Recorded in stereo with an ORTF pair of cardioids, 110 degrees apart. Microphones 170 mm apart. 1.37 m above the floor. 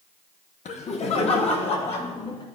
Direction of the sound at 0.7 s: 45° left.